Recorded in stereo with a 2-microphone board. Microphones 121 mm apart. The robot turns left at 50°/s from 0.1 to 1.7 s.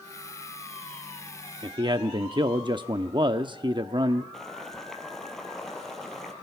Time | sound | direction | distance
1.6 | a man speaking | 40° right (ahead or behind) | 0.7 m
4.3 | boiling | 5° left (ahead or behind) | 3 m